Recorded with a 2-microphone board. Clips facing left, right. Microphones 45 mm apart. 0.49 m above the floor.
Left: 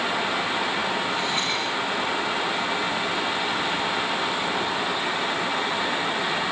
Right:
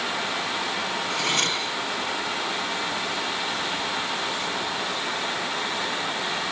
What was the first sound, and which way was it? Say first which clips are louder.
Cutlery clinking: even; 65° right (ahead or behind).